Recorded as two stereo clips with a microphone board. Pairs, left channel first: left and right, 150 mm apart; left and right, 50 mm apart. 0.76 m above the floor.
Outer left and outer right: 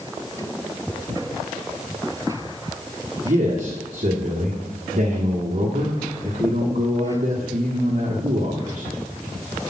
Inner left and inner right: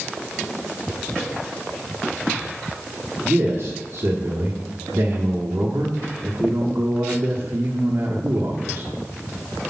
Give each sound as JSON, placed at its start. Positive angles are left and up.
{"t": 3.2, "sound": "a man speaking", "side_deg": -65, "distance_m": 1.3}